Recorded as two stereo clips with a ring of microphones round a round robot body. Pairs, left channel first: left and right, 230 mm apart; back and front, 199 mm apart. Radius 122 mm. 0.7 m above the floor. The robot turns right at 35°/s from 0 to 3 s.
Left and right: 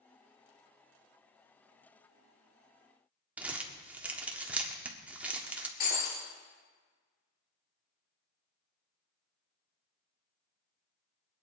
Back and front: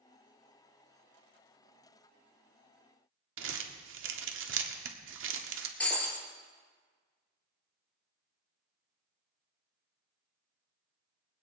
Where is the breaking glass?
95° left, 3.5 m.